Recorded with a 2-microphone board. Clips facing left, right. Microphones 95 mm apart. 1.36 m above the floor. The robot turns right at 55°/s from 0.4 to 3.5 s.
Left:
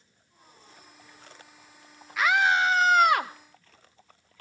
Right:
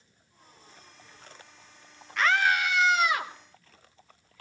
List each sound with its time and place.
2.2 s a scream: 5° left, 1.3 m; by 3.3 s 70° left, 1.3 m